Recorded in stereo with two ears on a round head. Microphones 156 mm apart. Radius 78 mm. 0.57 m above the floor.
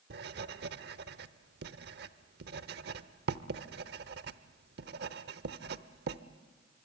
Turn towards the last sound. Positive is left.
turn(degrees=-65)  # may be behind; listen again after turning